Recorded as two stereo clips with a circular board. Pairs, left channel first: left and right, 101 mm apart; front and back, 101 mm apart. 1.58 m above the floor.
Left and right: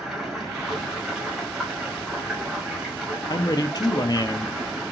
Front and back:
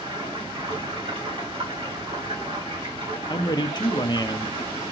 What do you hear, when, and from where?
0.0 s running water: 175° right, 2.5 m
3.3 s a man speaking: 40° left, 0.5 m